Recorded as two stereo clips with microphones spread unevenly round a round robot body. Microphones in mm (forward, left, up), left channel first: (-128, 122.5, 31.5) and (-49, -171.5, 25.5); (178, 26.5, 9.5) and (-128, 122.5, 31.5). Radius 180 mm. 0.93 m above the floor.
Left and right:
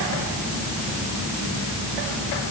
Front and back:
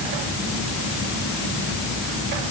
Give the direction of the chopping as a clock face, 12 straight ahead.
No chopping in this recording.